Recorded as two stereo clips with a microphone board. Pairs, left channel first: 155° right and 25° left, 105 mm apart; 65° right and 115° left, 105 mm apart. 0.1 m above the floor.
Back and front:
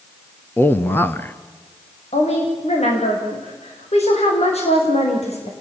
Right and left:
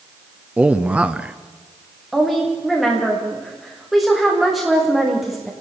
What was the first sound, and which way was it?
A man speaking, 170° left.